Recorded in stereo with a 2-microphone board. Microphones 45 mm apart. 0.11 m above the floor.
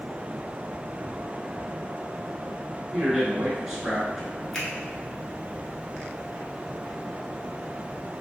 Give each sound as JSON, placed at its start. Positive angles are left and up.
{"t": 2.9, "sound": "a man speaking", "side_deg": -5, "distance_m": 1.1}
{"t": 4.5, "sound": "a finger snap", "side_deg": 10, "distance_m": 1.0}